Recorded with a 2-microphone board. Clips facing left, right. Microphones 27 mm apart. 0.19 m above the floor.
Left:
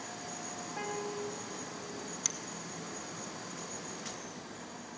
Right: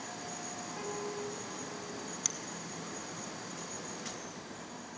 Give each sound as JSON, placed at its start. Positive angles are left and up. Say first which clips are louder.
{"t": 0.8, "sound": "a piano", "louder": "left 2 dB", "side_deg": 25, "distance_m": 1.3}
{"t": 2.2, "sound": "a finger snap", "louder": "left 1 dB", "side_deg": 0, "distance_m": 1.1}